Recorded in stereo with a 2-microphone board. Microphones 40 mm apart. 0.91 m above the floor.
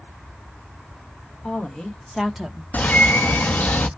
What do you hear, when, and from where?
1.4 s a woman speaking: 25° left (ahead or behind), 1.6 m; by 2.6 s 15° right (ahead or behind), 1.1 m
2.7 s a bird: 45° left (ahead or behind), 0.6 m